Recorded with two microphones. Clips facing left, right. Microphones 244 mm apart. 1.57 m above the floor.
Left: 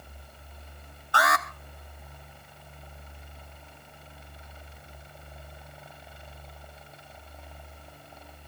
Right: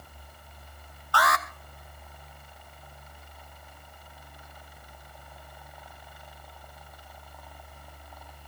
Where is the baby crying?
No baby crying in this recording.